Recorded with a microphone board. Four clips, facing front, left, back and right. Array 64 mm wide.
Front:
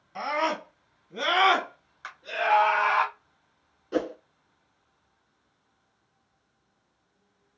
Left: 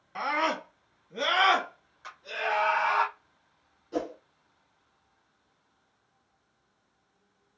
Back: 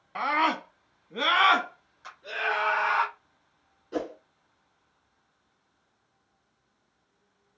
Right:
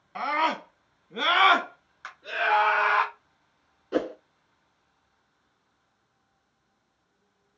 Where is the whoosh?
70° right, 0.5 m.